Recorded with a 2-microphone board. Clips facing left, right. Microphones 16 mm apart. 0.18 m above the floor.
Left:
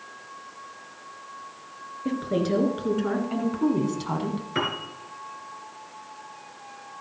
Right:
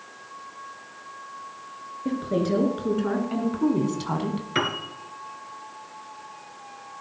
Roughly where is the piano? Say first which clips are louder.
Right 2 dB; right.